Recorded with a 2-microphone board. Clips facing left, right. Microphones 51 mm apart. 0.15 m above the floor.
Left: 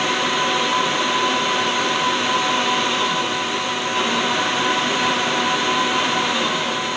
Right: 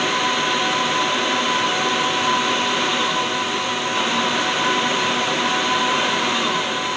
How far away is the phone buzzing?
I don't hear a phone buzzing.